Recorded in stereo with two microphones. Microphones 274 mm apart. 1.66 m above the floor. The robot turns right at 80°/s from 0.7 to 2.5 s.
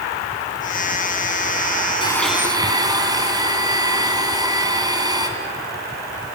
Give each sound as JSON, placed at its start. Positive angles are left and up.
{"t": 2.0, "sound": "a blender", "azimuth_deg": 160, "distance_m": 2.5}